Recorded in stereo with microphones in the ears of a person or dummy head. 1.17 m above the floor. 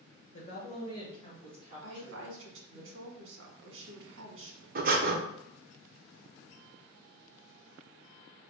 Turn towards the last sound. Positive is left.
turn(degrees=-40)  # may be behind; listen again after turning